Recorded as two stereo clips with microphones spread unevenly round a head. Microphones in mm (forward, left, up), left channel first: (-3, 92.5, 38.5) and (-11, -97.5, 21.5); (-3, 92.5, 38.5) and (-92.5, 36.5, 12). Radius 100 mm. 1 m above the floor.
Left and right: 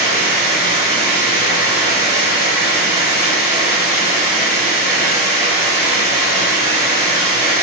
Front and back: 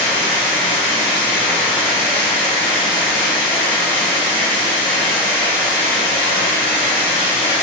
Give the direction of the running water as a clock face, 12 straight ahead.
1 o'clock.